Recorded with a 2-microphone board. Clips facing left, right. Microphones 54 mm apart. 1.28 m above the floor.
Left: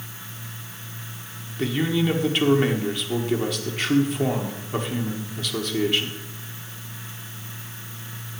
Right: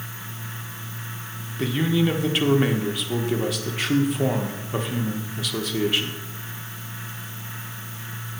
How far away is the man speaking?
About 1.5 m.